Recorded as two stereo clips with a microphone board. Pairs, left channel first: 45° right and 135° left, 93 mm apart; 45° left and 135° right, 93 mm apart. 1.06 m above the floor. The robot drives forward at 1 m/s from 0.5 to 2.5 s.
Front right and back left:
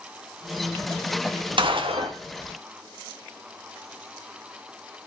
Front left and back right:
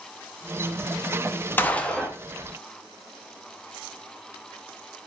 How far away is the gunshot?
About 1.4 m.